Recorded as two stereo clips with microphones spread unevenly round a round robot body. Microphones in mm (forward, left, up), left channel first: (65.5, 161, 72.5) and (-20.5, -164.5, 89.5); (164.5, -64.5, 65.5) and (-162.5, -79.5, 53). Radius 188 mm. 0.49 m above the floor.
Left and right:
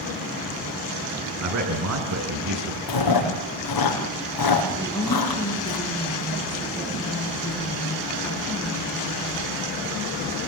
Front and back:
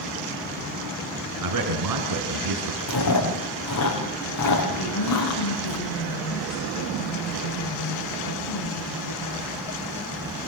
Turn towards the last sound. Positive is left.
turn(degrees=-5)